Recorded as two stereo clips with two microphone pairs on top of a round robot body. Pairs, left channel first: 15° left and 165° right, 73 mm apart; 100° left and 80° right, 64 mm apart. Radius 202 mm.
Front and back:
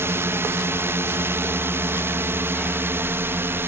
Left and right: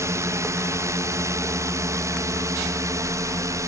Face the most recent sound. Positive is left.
turn(degrees=-110)